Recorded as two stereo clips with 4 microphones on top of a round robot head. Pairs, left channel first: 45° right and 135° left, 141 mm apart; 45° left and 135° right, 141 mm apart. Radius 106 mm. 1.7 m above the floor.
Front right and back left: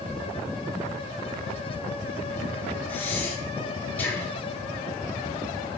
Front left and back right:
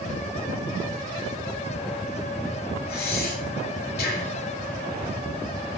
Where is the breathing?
35° left, 3 m.